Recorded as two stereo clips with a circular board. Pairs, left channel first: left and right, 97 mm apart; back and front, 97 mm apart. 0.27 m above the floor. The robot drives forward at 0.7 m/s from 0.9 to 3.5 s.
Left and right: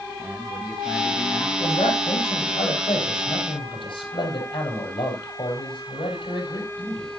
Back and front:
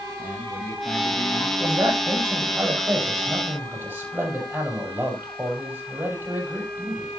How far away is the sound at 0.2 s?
About 1.7 m.